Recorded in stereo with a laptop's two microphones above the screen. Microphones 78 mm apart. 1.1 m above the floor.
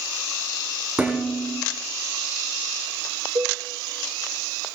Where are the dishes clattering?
20° right (ahead or behind), 7.5 m.